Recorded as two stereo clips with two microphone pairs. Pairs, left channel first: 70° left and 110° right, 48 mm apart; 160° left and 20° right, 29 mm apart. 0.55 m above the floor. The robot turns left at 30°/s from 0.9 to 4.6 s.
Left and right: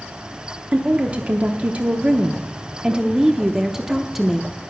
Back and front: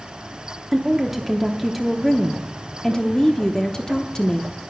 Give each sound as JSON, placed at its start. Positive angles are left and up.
{"t": 0.7, "sound": "a woman speaking", "azimuth_deg": -90, "distance_m": 0.7}